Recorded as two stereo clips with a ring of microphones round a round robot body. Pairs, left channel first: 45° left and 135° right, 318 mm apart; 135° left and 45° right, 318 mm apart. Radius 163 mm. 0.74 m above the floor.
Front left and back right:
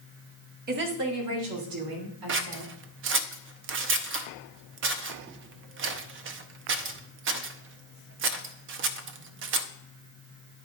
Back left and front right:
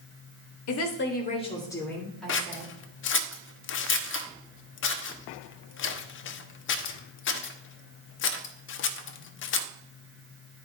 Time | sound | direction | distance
0.7 | a woman speaking | 165° left | 1.4 m
2.3 | scissors | straight behind | 0.7 m